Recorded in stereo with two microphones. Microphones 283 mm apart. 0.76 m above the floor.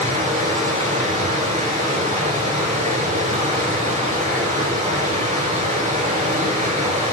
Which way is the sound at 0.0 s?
25° right (ahead or behind).